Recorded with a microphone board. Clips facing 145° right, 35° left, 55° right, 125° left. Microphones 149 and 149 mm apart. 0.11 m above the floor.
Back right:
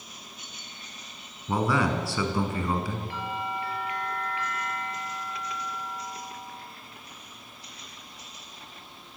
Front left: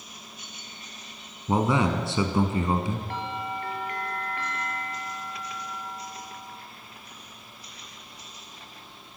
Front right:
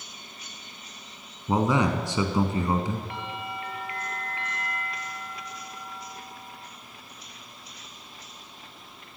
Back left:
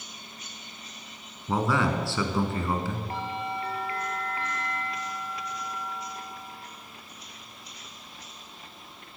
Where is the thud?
No thud in this recording.